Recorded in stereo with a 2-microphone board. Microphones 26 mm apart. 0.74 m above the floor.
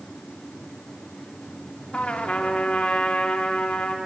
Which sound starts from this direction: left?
A trumpet, at 1.9 s.